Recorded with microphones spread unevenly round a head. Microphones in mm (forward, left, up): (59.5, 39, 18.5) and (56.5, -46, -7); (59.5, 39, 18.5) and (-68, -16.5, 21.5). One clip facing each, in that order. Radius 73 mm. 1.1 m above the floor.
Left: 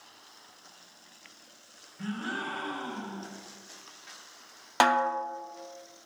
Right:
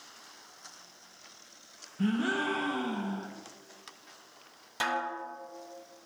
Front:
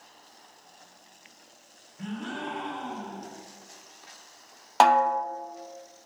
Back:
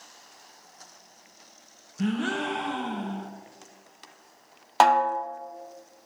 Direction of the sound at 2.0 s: 135° right.